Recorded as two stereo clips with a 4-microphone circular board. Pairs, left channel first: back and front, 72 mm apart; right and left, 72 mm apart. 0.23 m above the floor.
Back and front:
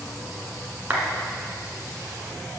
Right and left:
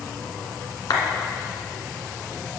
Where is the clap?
65° right, 1.9 m.